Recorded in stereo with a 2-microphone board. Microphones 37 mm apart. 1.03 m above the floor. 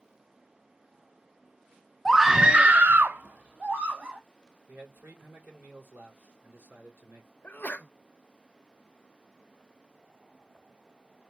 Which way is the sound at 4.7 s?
85° right.